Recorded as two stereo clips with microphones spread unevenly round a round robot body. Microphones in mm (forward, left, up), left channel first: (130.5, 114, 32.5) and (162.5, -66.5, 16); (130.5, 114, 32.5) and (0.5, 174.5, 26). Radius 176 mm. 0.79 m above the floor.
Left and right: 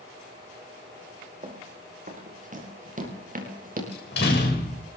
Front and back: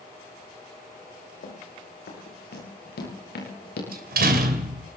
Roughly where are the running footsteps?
Ahead right.